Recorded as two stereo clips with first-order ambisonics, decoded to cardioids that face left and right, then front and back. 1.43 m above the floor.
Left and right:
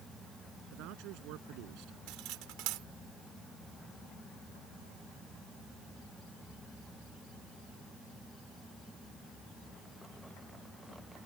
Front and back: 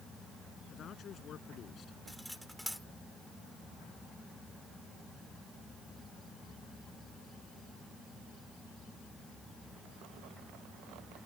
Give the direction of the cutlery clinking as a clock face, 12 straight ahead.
3 o'clock.